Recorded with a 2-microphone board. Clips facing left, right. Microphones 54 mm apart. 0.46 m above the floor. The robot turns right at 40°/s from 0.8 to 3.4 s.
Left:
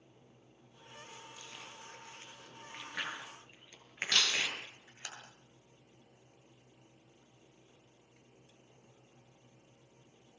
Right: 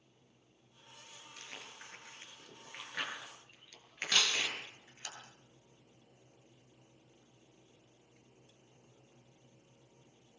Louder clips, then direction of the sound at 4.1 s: Even; 10° right (ahead or behind).